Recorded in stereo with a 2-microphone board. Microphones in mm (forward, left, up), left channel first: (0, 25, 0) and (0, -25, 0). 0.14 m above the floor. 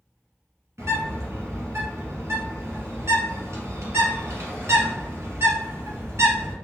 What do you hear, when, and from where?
0.8 s a bird: 60° right (ahead or behind), 1.7 m